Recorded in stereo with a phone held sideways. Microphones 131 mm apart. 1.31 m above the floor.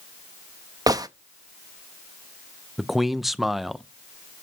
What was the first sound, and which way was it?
A gunshot, 30° right (ahead or behind).